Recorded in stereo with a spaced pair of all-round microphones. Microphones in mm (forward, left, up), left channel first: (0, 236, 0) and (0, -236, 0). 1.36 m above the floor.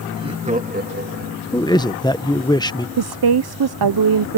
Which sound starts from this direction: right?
A woman speaking, at 3.0 s.